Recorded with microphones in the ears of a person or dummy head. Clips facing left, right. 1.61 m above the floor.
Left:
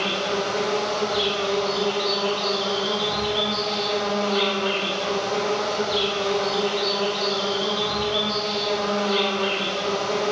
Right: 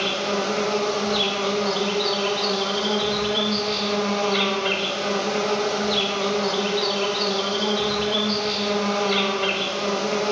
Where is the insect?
35° right (ahead or behind), 0.8 m.